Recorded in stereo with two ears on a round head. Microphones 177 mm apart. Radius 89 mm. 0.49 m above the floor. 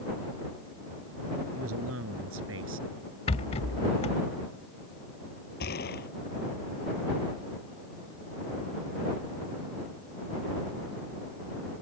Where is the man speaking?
85° right; by 2.9 s 80° right.